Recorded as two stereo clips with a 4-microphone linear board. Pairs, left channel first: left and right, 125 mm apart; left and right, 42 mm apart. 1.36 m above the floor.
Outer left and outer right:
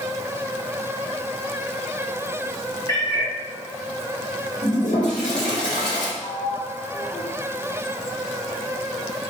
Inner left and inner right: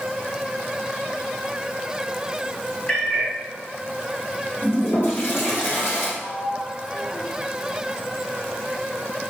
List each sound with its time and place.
2.9 s a cat meowing: 25° left (ahead or behind), 3 m
4.6 s a toilet flushing: 70° left (ahead or behind), 2.5 m
6.2 s a sliding door: 15° left (ahead or behind), 1.5 m